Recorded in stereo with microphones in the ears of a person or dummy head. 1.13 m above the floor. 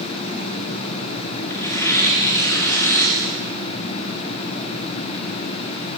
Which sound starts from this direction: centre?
Tearing paper, at 1.5 s.